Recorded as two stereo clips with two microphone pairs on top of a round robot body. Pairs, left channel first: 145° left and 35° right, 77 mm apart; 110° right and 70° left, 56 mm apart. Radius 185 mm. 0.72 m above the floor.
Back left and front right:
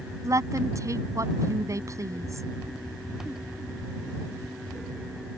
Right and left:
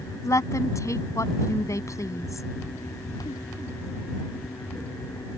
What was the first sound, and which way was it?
A woman speaking, 80° right.